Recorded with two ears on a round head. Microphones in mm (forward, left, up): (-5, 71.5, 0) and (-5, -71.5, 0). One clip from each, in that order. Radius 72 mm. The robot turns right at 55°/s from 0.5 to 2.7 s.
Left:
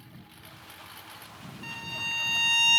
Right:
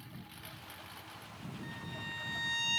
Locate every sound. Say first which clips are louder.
0.0 s a lawn mower: even; 5° right; by 2.8 s 115° left
1.6 s a violin: left 11 dB; 60° left; by 2.8 s 120° left